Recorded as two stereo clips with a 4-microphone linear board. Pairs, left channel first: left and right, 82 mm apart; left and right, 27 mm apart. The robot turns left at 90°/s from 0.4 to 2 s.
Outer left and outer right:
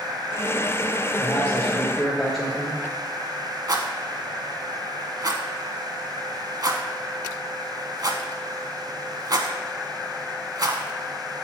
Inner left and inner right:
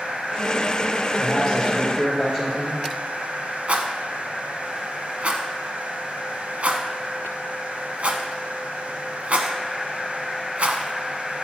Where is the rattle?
50° right (ahead or behind), 0.7 m.